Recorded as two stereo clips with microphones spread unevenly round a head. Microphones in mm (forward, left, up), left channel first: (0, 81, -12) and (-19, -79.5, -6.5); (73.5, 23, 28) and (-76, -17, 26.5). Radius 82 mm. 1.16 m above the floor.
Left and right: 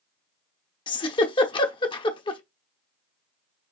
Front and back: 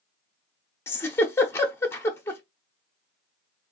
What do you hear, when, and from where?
0.9 s a giggle: 70° left, 0.8 m